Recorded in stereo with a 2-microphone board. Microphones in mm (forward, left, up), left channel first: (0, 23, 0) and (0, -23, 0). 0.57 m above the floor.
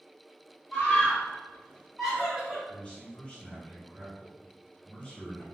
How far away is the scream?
About 1.5 m.